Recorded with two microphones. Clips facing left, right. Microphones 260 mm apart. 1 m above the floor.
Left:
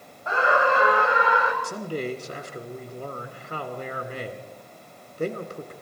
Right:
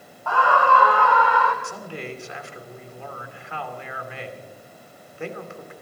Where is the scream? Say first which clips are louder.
Even; 20° left (ahead or behind), 0.6 m.